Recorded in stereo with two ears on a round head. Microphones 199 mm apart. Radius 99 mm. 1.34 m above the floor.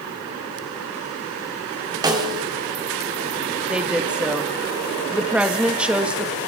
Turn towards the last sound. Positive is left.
turn(degrees=-5)  # may be behind; listen again after turning